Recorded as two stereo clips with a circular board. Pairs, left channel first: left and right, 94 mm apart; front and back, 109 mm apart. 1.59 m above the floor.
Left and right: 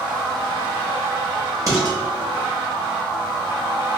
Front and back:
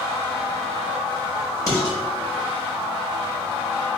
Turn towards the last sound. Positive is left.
turn(degrees=-50)